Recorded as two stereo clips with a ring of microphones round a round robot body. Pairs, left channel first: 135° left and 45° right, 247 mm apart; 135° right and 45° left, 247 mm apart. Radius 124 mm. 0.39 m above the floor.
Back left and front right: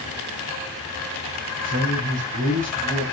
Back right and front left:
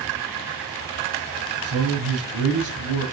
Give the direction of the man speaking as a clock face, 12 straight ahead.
12 o'clock.